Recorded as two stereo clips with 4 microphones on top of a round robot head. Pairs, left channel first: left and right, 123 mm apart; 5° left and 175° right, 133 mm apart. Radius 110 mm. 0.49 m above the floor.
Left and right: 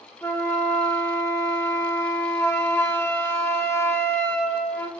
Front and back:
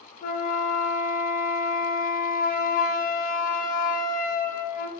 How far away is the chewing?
No chewing in this recording.